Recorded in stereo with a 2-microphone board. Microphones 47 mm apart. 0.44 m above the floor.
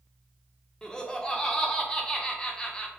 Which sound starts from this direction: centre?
Laughter, at 0.8 s.